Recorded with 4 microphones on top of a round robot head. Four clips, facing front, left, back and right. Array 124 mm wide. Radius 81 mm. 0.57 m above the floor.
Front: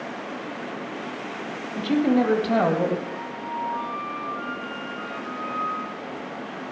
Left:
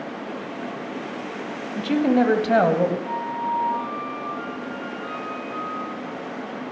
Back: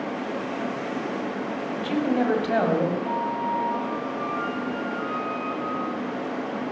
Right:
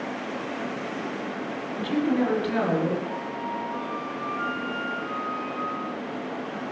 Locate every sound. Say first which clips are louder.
1.8 s a woman speaking: left 5 dB, front 4 dB; 80° left, 3.5 m; by 3.0 s 95° left, 3 m
3.0 s a flute: left 5 dB, back 7 dB; 155° left, 8 m